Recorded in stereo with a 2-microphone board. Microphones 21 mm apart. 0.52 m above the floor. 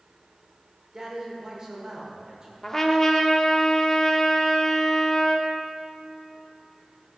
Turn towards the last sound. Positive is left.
turn(degrees=25)  # may be behind; listen again after turning